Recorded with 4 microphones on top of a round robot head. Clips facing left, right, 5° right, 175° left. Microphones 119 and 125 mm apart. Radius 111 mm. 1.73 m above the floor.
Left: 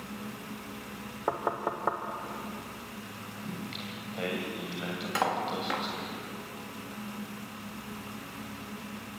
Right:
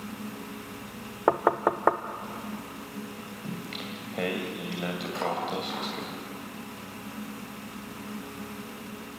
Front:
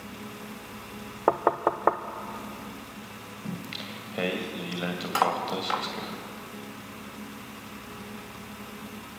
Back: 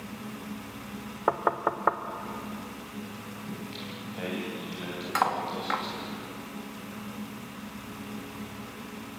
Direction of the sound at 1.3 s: 60° right.